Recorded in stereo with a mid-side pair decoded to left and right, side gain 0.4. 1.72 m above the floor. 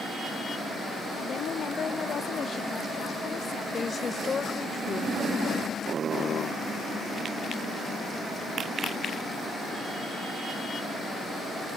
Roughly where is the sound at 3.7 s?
Ahead left.